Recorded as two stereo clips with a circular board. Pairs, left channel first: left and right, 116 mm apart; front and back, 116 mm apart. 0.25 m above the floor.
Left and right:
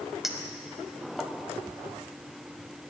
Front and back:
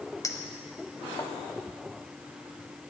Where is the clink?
5° right, 0.8 m.